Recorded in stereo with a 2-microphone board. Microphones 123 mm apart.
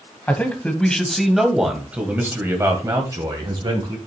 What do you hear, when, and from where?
0.3 s a man speaking: 15° left (ahead or behind), 1.9 m; by 4.0 s 40° right (ahead or behind), 1.8 m